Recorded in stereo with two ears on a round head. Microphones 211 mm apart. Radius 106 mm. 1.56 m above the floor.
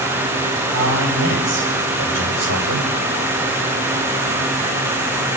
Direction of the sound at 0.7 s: 55° right (ahead or behind).